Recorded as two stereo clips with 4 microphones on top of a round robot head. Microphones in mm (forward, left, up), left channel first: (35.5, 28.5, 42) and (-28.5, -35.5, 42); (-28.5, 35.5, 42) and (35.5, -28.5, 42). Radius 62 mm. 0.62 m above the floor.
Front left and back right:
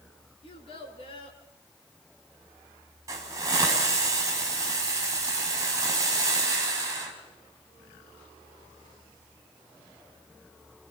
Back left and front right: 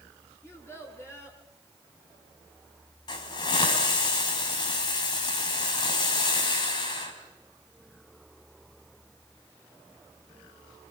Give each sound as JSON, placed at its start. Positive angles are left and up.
{"t": 0.4, "sound": "a child speaking", "azimuth_deg": 70, "distance_m": 5.5}
{"t": 3.1, "sound": "a hiss", "azimuth_deg": 170, "distance_m": 4.5}